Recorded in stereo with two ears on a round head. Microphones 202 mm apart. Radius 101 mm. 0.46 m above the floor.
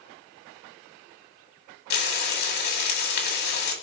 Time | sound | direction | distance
1.9 | frying | 50° left (ahead or behind) | 3 m